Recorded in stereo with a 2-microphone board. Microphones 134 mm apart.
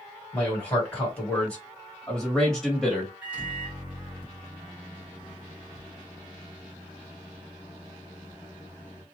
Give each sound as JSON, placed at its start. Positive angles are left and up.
{"t": 0.3, "sound": "a man speaking", "side_deg": 10, "distance_m": 1.6}
{"t": 3.2, "sound": "a microwave", "side_deg": -10, "distance_m": 1.8}